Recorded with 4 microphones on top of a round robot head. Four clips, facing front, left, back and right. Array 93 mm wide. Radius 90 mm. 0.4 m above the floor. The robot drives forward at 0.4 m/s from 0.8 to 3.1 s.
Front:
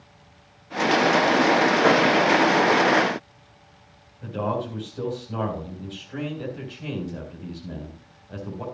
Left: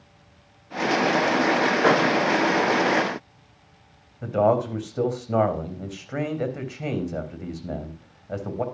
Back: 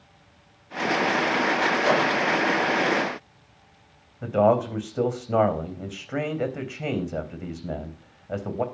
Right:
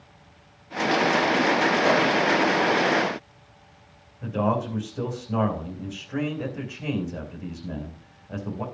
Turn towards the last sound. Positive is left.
turn(degrees=140)